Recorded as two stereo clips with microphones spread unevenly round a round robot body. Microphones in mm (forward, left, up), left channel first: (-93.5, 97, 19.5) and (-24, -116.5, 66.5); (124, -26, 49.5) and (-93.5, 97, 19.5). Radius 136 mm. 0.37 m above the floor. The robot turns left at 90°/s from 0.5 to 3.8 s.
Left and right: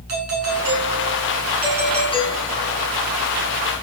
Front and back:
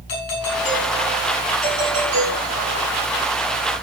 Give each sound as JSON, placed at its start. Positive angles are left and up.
{"t": 0.1, "sound": "a doorbell", "azimuth_deg": -40, "distance_m": 7.0}